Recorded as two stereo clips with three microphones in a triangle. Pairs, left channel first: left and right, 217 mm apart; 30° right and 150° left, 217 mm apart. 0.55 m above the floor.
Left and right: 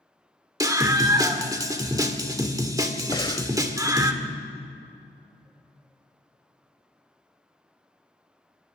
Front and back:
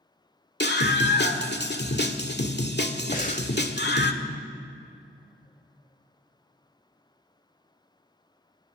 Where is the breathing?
20° left, 1.1 m.